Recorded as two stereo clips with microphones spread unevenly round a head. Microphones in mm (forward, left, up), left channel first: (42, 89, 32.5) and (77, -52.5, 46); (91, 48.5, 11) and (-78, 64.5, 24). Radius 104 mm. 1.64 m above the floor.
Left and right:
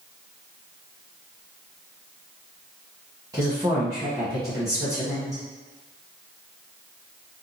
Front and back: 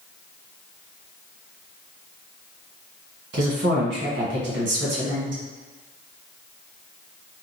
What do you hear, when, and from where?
3.3 s a woman speaking: 150° right, 1.3 m